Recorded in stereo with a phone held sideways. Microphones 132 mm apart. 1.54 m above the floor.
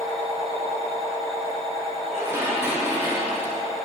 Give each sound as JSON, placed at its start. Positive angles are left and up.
{"t": 0.0, "sound": "a machine running", "side_deg": -35, "distance_m": 3.0}
{"t": 2.1, "sound": "dishes clattering", "side_deg": -15, "distance_m": 1.5}